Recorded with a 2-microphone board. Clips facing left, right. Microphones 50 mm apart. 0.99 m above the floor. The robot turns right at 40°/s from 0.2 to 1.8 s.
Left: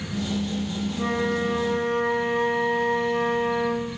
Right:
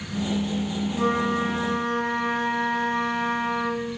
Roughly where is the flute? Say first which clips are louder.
Right 2 dB; behind right.